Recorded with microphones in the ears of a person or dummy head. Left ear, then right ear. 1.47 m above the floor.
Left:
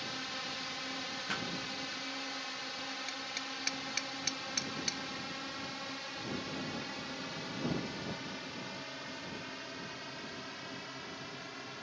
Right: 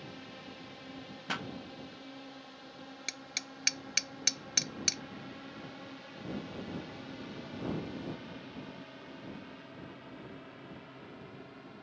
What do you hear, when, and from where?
0.0 s a drone: 50° left (ahead or behind); by 11.8 s 60° left (ahead or behind)
1.3 s a pop: 15° right (ahead or behind)
3.1 s hammering: 30° right (ahead or behind)